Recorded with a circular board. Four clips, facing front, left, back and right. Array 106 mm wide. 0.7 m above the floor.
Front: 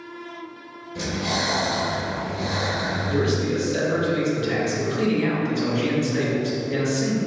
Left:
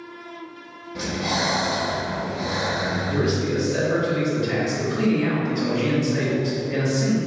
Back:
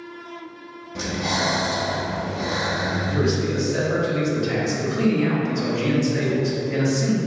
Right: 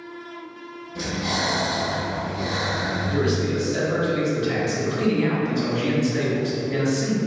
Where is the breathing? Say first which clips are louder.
Left 1 dB, back 1 dB; 160° left, 0.7 m.